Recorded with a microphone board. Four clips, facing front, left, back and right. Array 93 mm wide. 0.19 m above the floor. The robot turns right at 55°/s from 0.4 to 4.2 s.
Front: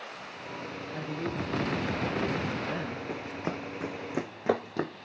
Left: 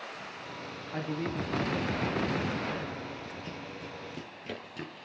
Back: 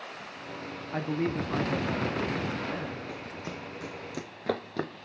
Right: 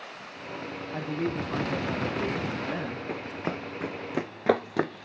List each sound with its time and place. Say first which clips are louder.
0.9 s a man speaking: right 3 dB, back 5 dB; straight behind, 1.3 m; by 3.0 s 65° right, 1.3 m
3.1 s running footsteps: right 8 dB, front 4 dB; 65° right, 0.7 m; by 5.1 s 90° right, 0.9 m